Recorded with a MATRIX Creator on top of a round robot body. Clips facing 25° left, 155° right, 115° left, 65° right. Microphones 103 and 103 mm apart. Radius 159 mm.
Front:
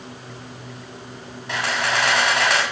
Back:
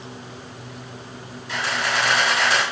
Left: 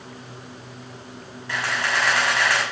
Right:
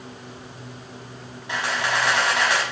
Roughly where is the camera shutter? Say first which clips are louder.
Front 1 dB, right 1 dB; ahead.